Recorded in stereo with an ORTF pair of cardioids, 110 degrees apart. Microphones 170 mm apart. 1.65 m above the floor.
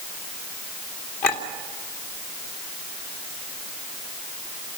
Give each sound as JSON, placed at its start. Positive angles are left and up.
{"t": 1.2, "sound": "a clink", "azimuth_deg": 70, "distance_m": 3.0}